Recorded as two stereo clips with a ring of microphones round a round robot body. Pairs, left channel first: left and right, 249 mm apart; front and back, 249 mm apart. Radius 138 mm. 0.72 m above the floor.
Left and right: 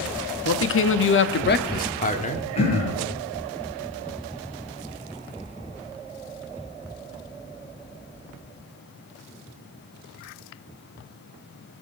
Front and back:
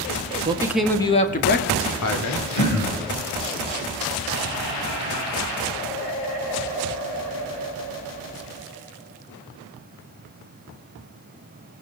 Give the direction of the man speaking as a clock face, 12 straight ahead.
8 o'clock.